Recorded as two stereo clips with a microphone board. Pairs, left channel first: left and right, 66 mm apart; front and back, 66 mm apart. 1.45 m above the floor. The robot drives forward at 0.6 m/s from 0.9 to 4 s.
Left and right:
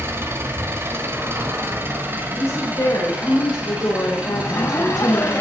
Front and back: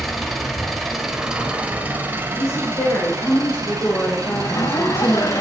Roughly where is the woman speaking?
Ahead left.